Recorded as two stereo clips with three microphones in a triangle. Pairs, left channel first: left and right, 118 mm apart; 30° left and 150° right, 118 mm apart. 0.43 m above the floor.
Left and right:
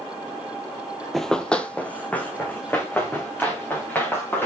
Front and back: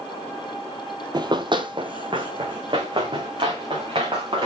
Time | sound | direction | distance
1.1 | running footsteps | 175° left | 0.5 m